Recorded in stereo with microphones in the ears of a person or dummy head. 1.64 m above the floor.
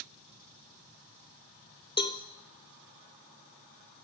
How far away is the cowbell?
About 0.6 m.